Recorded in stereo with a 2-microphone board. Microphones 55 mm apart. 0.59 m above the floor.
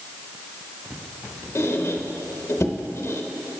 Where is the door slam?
No door slam in this recording.